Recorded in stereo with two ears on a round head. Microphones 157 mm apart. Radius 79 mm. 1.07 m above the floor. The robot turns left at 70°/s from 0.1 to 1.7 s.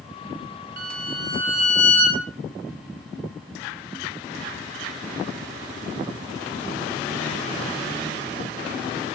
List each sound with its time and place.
0.8 s a violin: 120° right, 3.5 m; by 2.2 s 170° left, 3.5 m